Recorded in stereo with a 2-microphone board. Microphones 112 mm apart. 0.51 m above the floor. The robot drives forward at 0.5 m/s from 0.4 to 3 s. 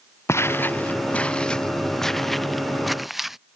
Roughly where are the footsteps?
Left.